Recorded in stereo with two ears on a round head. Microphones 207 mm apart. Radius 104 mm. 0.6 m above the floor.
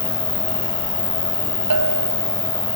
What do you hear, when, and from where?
0.0 s an insect: 10° left (ahead or behind)
1.7 s a bell: 75° right (ahead or behind)